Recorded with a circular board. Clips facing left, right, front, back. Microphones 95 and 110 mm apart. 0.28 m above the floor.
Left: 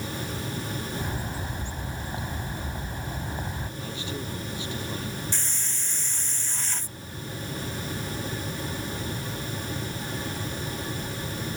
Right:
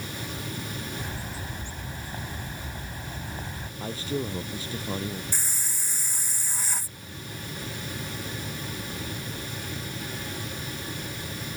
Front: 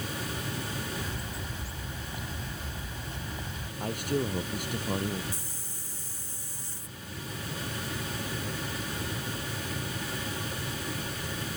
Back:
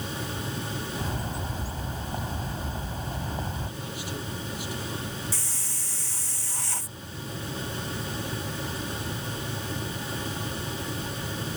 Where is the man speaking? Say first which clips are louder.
Right 7 dB, front 5 dB; 35° right.